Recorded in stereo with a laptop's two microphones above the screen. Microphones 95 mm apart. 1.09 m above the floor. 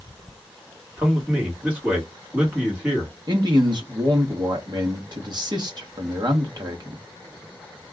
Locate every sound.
1.0 s a man speaking: 15° right (ahead or behind), 1.4 m
3.3 s a man speaking: 45° right (ahead or behind), 0.8 m